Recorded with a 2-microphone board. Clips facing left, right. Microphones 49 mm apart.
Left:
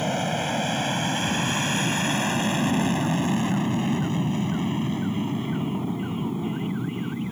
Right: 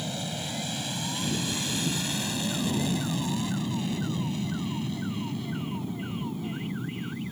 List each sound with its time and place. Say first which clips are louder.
0.0 s an aircraft: left 9 dB; 45° left (ahead or behind); by 7.3 s 30° left (ahead or behind)